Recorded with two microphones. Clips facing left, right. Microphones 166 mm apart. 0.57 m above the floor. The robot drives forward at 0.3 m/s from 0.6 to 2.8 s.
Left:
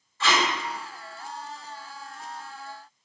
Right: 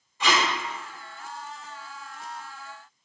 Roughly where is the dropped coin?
I don't hear a dropped coin.